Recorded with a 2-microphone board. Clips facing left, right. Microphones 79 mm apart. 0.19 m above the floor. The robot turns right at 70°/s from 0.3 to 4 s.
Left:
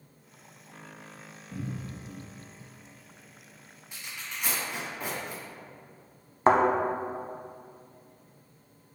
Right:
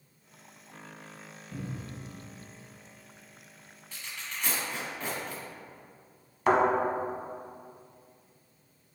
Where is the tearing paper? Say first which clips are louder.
Even; 20° left (ahead or behind), 1.7 m; by 5.4 s 15° left (ahead or behind), 1.7 m.